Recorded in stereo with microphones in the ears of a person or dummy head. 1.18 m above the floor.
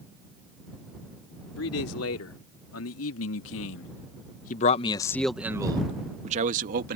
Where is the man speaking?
85° left; by 7.0 s 50° right (ahead or behind).